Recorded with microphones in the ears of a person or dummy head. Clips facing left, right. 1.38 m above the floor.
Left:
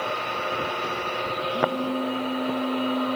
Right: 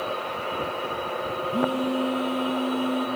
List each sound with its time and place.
1.5 s a phone buzzing: 50° right (ahead or behind), 3.5 m